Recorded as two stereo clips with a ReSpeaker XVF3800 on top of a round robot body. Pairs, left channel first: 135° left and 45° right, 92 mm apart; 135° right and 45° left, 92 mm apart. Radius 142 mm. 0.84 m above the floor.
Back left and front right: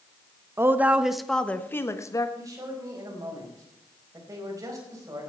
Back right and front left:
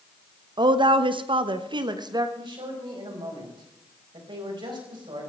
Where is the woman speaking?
15° left, 1.2 m; by 2.3 s 85° left, 1.5 m.